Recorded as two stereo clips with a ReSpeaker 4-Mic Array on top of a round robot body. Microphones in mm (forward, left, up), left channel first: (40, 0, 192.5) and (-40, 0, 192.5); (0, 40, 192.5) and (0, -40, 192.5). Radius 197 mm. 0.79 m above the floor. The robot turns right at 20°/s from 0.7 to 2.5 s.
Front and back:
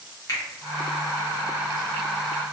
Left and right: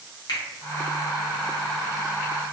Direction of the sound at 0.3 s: 50° left.